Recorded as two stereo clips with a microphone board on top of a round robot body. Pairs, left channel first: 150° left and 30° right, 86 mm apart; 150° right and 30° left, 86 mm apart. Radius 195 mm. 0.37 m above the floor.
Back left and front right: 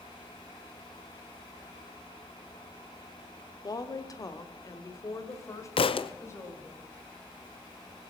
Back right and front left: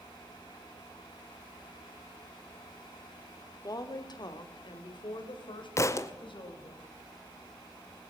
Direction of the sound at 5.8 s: 155° left.